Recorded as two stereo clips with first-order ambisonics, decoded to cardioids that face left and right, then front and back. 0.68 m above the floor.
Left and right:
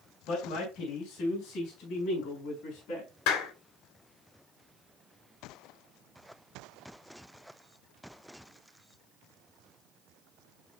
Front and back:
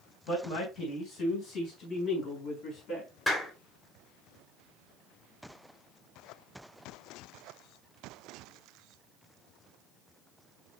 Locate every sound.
0.3 s a man speaking: 45° left, 3.5 m
3.3 s a clap: 80° left, 2.5 m